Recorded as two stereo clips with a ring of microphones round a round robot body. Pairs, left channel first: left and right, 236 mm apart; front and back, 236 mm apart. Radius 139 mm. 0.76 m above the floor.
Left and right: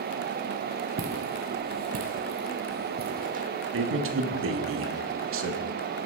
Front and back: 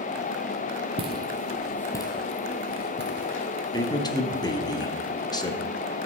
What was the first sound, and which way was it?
Footsteps, 115° right.